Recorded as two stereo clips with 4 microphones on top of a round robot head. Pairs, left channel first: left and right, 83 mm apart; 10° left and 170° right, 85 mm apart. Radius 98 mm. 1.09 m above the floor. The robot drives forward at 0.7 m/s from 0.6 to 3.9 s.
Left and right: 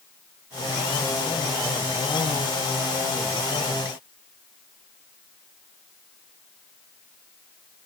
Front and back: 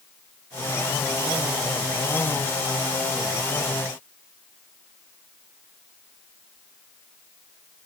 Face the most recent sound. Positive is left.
No sound to turn to.